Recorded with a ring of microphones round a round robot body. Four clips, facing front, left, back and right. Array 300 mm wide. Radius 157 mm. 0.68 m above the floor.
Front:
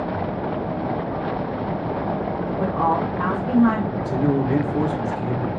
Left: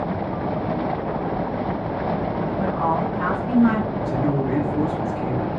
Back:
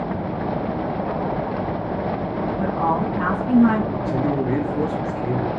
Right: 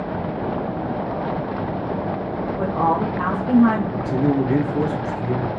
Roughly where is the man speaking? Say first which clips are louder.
Right 3 dB, front 1 dB; ahead right.